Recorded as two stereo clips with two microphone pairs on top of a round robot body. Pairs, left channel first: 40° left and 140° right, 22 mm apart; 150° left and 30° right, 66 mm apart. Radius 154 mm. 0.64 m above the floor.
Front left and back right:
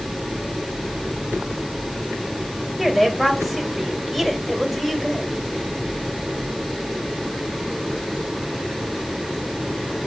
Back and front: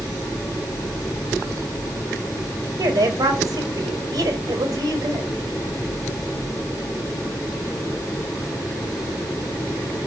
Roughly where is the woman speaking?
Ahead right.